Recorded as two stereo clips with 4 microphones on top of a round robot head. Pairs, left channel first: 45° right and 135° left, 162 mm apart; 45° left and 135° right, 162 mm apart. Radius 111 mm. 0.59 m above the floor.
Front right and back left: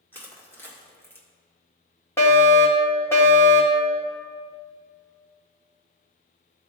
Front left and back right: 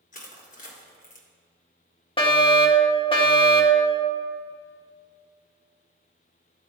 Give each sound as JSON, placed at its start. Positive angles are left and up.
{"t": 0.1, "sound": "crushing", "azimuth_deg": 35, "distance_m": 1.7}
{"t": 2.2, "sound": "a fire alarm", "azimuth_deg": 20, "distance_m": 1.9}